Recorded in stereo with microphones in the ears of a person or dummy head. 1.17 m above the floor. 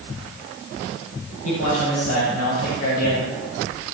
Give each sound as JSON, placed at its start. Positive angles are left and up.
{"t": 1.4, "sound": "a man speaking", "side_deg": 80, "distance_m": 5.5}